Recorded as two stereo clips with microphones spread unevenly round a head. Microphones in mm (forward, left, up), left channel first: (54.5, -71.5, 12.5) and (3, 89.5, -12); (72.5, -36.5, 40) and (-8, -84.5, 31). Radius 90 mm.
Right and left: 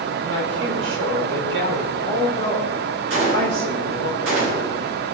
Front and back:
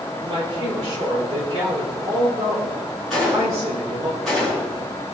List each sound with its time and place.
0.2 s a man speaking: 140° left, 4.5 m
3.1 s a gunshot: 120° left, 4.5 m